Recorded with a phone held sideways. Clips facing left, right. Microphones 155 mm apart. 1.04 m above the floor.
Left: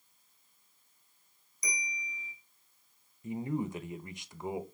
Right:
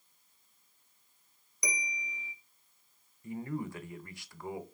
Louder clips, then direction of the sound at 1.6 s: Right 3 dB; 70° right (ahead or behind).